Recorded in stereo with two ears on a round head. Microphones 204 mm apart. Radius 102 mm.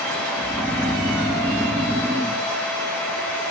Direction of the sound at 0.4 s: 10° right (ahead or behind).